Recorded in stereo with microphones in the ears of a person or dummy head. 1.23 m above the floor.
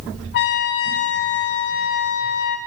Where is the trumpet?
60° left (ahead or behind), 1.1 m.